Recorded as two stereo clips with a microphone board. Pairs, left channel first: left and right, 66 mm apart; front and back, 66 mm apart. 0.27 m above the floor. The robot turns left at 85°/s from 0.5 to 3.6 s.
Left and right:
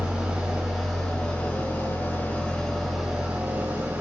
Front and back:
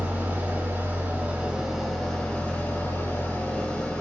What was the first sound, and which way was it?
An engine running, 150° right.